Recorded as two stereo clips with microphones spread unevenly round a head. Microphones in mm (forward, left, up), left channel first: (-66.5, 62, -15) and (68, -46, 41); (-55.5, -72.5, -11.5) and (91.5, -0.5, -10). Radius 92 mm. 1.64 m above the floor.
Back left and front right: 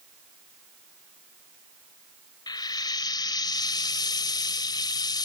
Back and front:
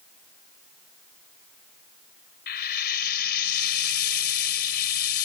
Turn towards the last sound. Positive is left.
turn(degrees=-140)